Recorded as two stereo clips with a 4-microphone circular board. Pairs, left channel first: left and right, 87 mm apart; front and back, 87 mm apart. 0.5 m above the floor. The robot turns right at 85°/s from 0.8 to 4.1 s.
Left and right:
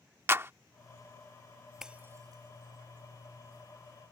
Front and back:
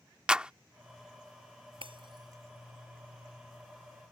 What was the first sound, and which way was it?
A clap, 110° right.